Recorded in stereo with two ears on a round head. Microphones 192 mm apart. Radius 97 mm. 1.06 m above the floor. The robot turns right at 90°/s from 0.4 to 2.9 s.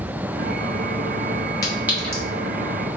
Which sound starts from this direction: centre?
A clink, at 1.6 s.